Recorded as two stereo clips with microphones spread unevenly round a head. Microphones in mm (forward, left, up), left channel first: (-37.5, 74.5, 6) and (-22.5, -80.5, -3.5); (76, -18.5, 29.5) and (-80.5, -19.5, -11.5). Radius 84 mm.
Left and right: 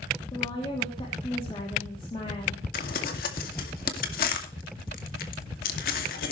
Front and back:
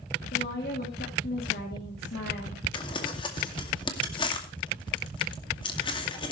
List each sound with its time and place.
0.3 s a woman speaking: 30° left, 2.5 m
2.7 s crumpling: 60° left, 2 m